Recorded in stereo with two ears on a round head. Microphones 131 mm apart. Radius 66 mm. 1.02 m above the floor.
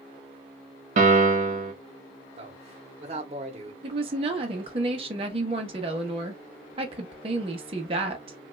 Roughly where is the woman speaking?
Right.